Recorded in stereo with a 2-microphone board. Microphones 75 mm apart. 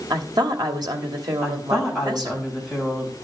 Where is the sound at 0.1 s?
65° right (ahead or behind), 1.4 m.